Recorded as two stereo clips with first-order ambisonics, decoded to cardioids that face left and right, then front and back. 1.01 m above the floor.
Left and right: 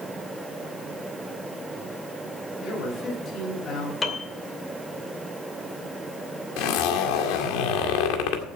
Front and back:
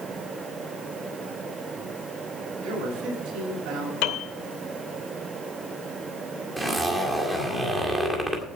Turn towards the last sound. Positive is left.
turn(degrees=95)